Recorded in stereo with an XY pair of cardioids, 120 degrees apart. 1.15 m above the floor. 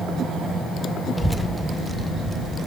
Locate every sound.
1.2 s a child speaking: straight ahead, 1.1 m; by 2.7 s 20° right, 1.8 m